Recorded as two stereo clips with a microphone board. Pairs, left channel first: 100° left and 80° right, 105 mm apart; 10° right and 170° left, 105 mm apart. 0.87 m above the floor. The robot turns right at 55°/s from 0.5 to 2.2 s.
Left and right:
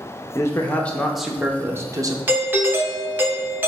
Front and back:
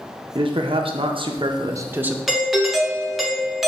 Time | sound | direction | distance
0.3 | a man speaking | 155° left | 0.6 m
2.3 | a doorbell | 105° right | 0.7 m